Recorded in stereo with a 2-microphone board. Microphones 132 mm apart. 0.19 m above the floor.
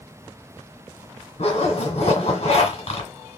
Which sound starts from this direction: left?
A zipper, at 1.4 s.